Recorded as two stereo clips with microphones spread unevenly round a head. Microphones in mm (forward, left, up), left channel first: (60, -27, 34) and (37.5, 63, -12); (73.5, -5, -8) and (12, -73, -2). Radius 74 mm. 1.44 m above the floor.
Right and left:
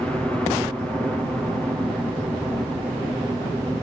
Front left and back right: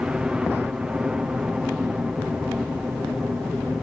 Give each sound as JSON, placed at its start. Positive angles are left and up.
{"t": 0.0, "sound": "a helicopter", "azimuth_deg": 155}